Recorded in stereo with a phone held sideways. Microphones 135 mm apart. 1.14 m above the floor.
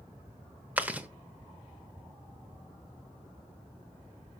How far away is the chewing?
About 1.0 m.